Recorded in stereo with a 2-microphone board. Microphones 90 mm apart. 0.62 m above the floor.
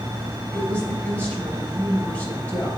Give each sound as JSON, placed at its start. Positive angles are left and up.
{"t": 0.5, "sound": "a woman speaking", "side_deg": 15, "distance_m": 3.5}